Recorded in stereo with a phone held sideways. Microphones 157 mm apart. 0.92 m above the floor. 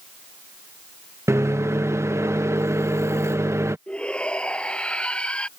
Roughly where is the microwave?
Centre.